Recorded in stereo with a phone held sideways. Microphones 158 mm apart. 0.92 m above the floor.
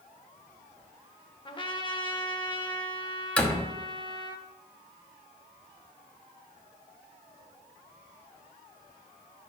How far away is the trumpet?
About 0.8 m.